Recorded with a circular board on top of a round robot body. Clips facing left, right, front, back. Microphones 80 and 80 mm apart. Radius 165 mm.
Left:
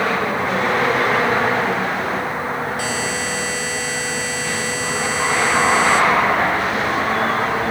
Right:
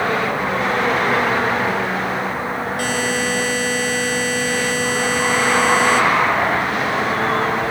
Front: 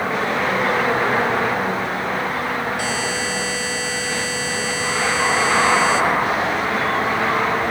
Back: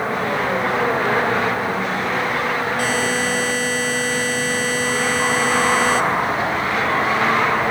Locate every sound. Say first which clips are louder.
2.8 s a buzzer: right 3 dB, back 3 dB; 130° right, 1.4 m